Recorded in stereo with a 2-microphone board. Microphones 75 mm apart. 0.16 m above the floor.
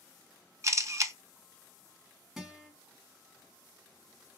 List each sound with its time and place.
0.6 s a camera shutter: 45° right (ahead or behind), 0.5 m
2.4 s a guitar: 5° right (ahead or behind), 1.1 m